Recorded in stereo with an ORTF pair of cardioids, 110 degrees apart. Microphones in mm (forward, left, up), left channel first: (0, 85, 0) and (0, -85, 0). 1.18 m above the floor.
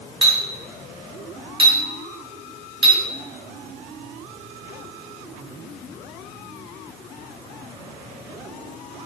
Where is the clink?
30° right, 1.3 m.